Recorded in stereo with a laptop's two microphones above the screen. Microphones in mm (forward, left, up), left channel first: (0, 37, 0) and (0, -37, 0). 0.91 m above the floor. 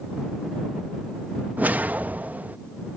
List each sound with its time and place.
1.6 s a whoosh: 25° right (ahead or behind)